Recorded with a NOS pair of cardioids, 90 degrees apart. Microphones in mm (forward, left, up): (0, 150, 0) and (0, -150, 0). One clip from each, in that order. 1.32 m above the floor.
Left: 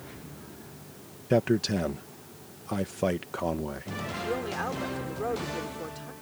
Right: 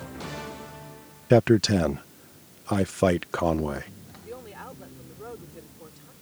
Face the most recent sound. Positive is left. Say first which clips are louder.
# left 8 dB
turn(degrees=55)